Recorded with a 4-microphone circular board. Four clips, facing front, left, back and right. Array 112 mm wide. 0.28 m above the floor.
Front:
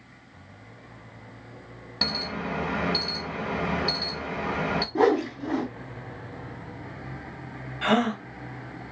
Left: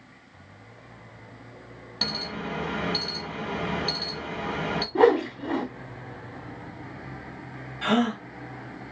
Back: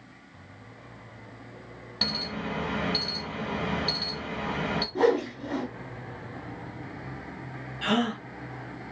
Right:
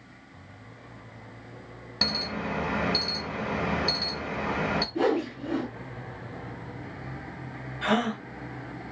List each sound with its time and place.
2.0 s an alarm: 55° right, 0.7 m
5.0 s a whoosh: 65° left, 0.7 m
7.8 s a gasp: 10° right, 1.2 m